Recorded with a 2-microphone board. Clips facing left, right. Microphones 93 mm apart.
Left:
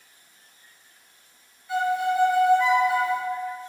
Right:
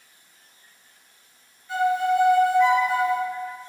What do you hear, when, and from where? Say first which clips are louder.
1.7 s a violin: right 2 dB; 5° left (ahead or behind), 1.0 m